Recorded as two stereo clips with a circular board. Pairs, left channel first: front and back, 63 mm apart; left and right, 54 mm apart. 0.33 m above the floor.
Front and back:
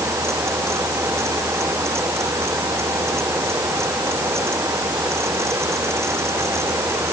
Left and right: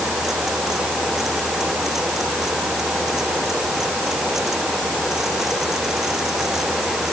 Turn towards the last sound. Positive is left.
No sound to turn to.